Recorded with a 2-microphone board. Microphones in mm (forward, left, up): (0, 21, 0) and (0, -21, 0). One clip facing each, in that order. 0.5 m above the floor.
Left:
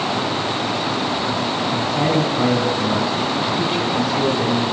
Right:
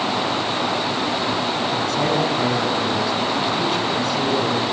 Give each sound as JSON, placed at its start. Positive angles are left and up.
{"t": 1.7, "sound": "a man speaking", "side_deg": 10, "distance_m": 5.0}